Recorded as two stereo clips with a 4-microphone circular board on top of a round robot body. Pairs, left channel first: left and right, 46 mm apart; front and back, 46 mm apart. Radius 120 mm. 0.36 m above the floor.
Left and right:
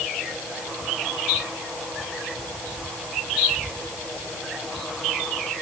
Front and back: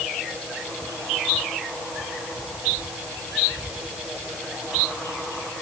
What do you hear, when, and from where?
Only background noise.